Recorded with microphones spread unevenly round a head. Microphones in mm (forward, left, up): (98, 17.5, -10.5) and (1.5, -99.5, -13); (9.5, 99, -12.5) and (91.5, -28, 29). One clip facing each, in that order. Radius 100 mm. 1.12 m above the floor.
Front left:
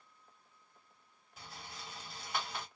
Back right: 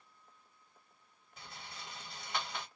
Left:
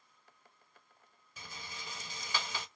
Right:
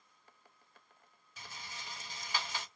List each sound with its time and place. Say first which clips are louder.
1.4 s a rattle: front left 1 dB, left 1 dB; 140° left, 0.8 m